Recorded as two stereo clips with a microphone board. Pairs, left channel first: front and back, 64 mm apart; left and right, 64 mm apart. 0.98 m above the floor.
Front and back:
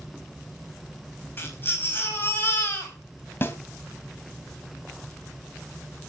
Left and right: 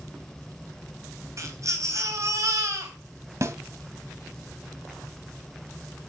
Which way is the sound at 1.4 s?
55° right.